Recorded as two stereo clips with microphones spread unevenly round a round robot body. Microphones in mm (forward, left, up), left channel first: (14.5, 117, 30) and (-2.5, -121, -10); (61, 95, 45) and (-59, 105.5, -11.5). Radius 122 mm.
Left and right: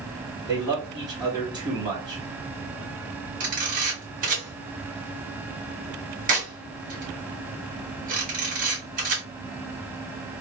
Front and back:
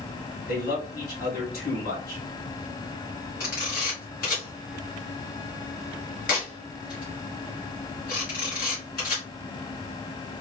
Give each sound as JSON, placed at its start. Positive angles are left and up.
{"t": 0.5, "sound": "a man speaking", "azimuth_deg": -25, "distance_m": 2.0}
{"t": 3.4, "sound": "a camera shutter", "azimuth_deg": -50, "distance_m": 1.9}